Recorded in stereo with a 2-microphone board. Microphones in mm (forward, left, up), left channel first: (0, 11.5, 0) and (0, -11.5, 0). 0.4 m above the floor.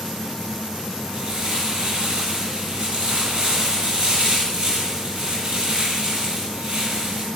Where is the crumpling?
50° right (ahead or behind), 7 m.